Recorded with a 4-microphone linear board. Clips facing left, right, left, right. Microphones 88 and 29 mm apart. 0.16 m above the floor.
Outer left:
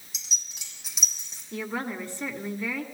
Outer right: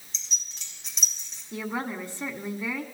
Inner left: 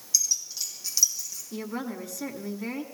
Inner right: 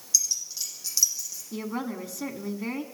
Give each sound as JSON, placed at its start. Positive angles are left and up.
{"t": 0.1, "sound": "keys jangling", "side_deg": 10, "distance_m": 4.0}
{"t": 1.5, "sound": "a woman speaking", "side_deg": -15, "distance_m": 1.4}